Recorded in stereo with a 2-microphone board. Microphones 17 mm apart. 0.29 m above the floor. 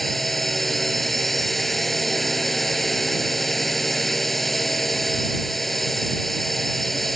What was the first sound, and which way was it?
A drone, 5° left (ahead or behind).